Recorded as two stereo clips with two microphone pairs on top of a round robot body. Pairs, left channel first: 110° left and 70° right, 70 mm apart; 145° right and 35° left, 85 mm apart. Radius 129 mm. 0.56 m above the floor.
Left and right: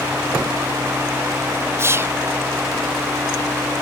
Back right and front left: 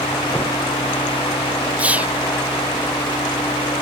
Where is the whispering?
45° right.